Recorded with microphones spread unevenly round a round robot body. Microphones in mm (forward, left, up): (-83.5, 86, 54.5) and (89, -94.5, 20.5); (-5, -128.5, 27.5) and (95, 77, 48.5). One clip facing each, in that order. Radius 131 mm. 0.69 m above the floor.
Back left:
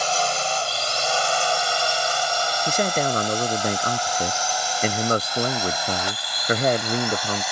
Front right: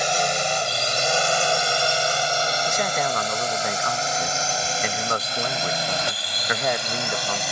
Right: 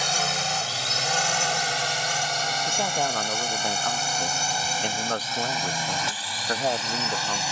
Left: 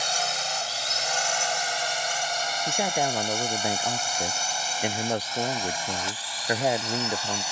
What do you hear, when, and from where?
0.0 s a drone: 120° right; by 7.5 s 105° right
2.7 s a man speaking: 140° left